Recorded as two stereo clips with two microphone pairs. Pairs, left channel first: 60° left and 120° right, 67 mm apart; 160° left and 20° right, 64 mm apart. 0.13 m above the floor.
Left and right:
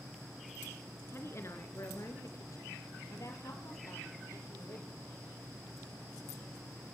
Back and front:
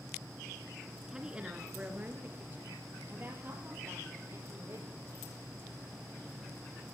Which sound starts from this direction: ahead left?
A woman speaking, at 1.1 s.